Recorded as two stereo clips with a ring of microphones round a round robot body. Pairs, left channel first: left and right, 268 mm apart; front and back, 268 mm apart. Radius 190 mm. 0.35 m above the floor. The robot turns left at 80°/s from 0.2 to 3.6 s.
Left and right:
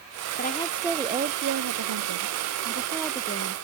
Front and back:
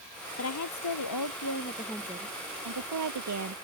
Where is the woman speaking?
35° left; by 3.6 s 140° left.